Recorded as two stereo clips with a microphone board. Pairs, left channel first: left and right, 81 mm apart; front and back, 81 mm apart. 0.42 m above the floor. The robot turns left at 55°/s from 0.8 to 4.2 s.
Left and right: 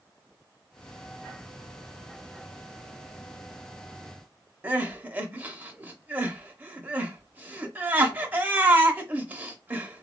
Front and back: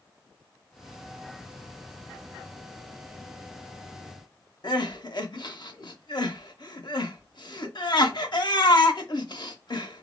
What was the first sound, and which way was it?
Crying, 25° right.